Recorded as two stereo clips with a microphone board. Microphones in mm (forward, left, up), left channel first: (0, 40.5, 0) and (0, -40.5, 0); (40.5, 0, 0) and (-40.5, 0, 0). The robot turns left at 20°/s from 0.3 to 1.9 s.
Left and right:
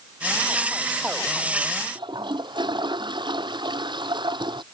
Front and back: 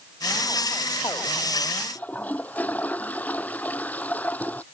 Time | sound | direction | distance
1.9 | a toilet flushing | 70° right | ?